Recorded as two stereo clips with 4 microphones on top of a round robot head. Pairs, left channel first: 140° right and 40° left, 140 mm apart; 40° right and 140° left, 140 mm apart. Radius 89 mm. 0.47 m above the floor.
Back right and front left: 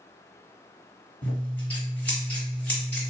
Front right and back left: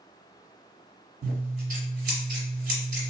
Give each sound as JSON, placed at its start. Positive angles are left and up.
{"t": 1.2, "sound": "scissors", "azimuth_deg": 145, "distance_m": 1.5}